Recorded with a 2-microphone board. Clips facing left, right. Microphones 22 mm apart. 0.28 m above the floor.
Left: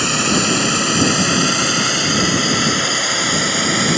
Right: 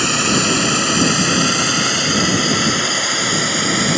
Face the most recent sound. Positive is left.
turn(degrees=0)  # may be behind; listen again after turning